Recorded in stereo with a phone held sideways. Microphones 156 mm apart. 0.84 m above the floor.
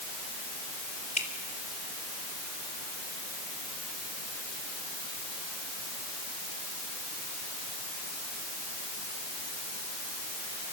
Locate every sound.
1.2 s dripping: 50° left (ahead or behind), 3 m